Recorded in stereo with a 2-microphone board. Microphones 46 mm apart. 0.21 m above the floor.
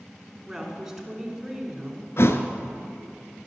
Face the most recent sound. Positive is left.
turn(degrees=60)  # may be behind; listen again after turning